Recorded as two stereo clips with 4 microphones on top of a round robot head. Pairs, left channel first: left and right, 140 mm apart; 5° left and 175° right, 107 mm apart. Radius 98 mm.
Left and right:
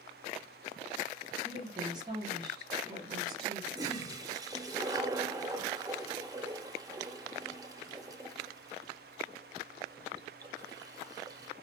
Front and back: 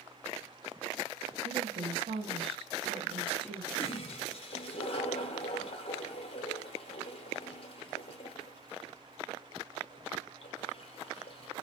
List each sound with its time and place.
1.4 s a woman speaking: 150° right, 0.9 m
3.8 s a toilet flushing: 25° right, 0.6 m